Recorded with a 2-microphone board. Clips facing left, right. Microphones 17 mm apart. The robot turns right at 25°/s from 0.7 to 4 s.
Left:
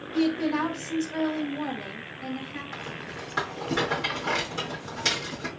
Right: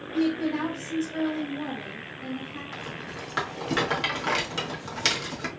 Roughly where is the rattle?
Centre.